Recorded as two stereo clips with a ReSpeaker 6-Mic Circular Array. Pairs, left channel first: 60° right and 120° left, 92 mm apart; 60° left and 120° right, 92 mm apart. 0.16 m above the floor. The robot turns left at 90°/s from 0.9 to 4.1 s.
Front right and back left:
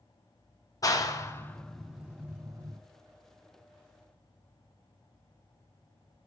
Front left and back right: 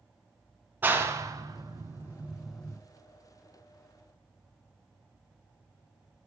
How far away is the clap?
About 0.9 m.